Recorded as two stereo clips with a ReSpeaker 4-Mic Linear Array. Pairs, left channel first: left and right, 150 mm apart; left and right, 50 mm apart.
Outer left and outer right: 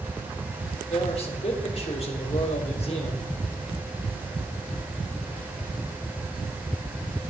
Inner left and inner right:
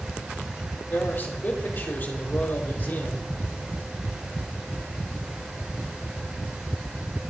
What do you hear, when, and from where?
0.9 s a man speaking: 45° left (ahead or behind), 3.5 m